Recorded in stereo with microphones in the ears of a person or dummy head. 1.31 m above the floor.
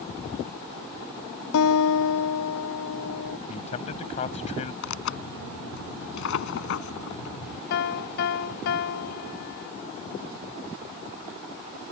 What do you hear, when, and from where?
1.5 s a guitar: 70° left (ahead or behind)
3.5 s a man speaking: 35° left (ahead or behind)
4.8 s tearing paper: 65° left (ahead or behind)
7.7 s a piano: 55° left (ahead or behind)